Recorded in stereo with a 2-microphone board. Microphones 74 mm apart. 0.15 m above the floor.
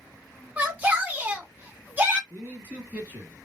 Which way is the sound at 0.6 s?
20° right (ahead or behind).